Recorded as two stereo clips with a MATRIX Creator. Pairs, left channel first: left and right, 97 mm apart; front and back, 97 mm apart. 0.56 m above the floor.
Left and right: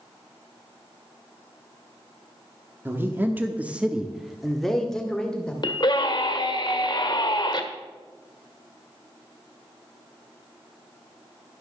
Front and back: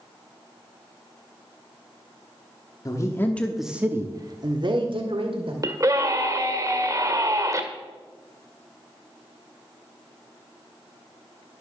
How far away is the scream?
About 1.7 m.